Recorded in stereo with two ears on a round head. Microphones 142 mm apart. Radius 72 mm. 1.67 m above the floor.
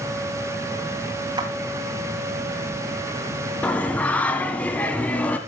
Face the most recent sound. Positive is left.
turn(degrees=10)  # may be behind; listen again after turning